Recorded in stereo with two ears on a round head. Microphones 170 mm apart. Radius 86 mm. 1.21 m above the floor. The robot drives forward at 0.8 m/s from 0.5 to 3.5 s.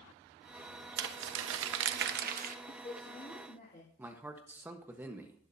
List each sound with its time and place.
1.0 s crumpling: 60° right (ahead or behind), 0.9 m; by 2.5 s 45° right (ahead or behind), 1.1 m
2.6 s a man speaking: 55° left (ahead or behind), 2 m; by 3.9 s 45° left (ahead or behind), 2.5 m
4.0 s a man speaking: 10° right (ahead or behind), 1.2 m